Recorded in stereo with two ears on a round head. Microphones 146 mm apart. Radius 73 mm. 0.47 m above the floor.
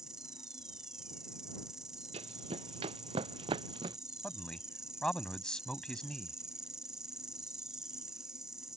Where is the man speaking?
5° left (ahead or behind).